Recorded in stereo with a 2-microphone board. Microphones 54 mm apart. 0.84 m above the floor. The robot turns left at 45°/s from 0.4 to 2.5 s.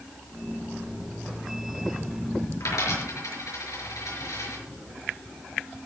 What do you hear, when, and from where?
2.6 s a dropped coin: 85° left, 5.5 m